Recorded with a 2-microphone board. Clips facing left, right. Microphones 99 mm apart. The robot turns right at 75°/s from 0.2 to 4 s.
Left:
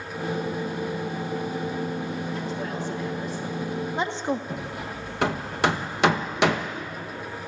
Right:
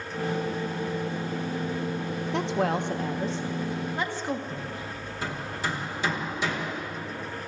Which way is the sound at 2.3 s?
80° right.